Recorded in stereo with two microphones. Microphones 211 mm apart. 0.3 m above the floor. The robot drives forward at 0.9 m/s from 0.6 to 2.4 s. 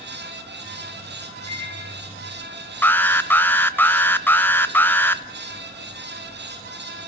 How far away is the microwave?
About 8.5 m.